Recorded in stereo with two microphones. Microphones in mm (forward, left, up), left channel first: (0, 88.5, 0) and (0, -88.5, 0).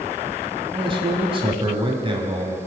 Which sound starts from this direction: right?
A man speaking, at 0.7 s.